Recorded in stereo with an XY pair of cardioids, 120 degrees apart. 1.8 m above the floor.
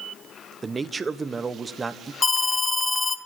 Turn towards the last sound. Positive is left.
turn(degrees=20)